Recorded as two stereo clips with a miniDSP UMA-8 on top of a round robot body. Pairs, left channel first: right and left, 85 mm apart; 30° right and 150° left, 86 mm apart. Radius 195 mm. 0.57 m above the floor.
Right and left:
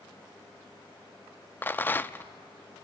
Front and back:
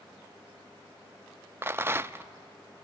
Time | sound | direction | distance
1.6 | a rattle | 150° right | 0.7 m